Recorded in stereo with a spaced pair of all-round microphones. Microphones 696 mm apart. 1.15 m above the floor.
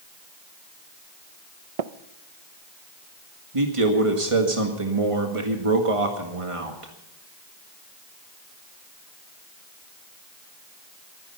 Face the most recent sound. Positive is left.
turn(degrees=-50)  # may be behind; listen again after turning